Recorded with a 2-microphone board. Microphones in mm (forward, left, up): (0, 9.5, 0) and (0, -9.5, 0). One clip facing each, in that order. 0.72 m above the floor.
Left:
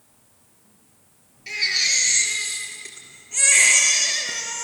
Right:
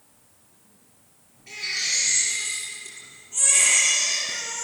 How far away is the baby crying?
About 4.5 m.